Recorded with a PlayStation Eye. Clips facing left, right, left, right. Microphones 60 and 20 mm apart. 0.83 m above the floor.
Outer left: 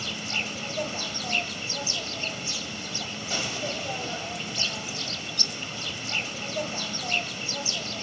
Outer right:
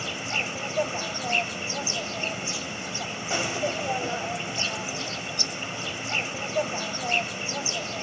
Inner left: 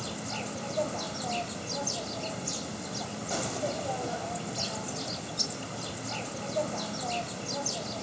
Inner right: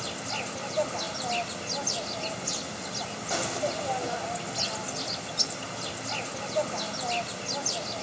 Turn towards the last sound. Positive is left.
turn(degrees=-25)  # may be behind; listen again after turning